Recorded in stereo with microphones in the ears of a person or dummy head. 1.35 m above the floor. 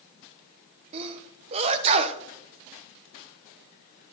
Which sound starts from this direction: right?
A sneeze, at 0.9 s.